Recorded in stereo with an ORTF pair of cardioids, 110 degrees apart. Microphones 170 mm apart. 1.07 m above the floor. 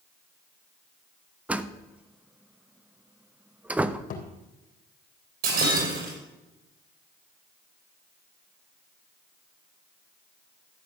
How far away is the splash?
I don't hear a splash.